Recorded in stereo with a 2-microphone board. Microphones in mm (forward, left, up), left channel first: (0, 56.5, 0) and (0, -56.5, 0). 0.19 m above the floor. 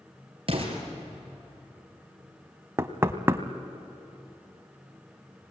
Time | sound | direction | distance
0.5 | an explosion | 50° right (ahead or behind) | 4 m
2.8 | knocking | 20° right (ahead or behind) | 0.9 m